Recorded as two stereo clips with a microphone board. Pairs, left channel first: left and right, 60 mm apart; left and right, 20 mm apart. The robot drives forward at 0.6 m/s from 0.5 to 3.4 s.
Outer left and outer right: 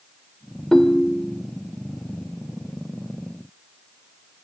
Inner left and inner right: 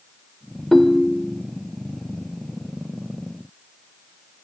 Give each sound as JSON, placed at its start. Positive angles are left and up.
{"t": 0.7, "sound": "a ringtone", "side_deg": 10, "distance_m": 0.5}